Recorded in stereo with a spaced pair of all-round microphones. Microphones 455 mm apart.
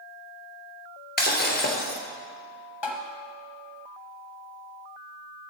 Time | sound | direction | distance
1.2 | breaking glass | 20° left (ahead or behind) | 1.7 m
2.8 | tapping | 65° left (ahead or behind) | 1.1 m